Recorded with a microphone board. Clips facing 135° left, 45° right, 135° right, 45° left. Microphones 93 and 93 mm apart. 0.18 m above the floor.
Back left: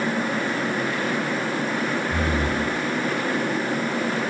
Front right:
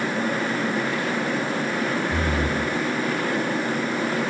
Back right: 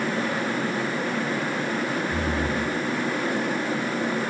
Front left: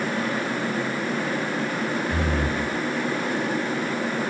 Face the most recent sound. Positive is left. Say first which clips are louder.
# even, even
turn(degrees=45)